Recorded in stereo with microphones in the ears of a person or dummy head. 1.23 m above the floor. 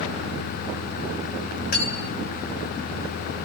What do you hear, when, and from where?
1.7 s cutlery clinking: 50° left (ahead or behind), 2 m